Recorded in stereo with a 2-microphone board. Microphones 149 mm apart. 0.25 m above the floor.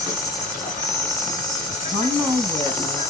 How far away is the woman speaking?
About 1.8 m.